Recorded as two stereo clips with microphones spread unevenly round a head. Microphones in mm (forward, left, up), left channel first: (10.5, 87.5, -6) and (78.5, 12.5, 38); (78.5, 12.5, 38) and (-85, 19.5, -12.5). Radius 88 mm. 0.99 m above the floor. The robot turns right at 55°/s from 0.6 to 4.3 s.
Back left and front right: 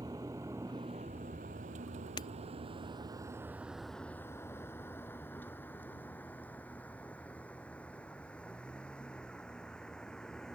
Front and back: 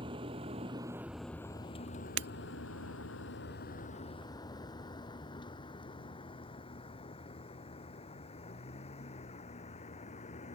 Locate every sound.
0.0 s a vehicle: 115° right; by 10.6 s 50° left
2.2 s breaking glass: 150° right; by 2.3 s 145° right